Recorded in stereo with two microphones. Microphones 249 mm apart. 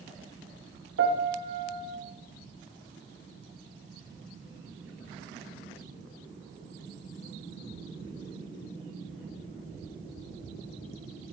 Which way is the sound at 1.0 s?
75° right (ahead or behind).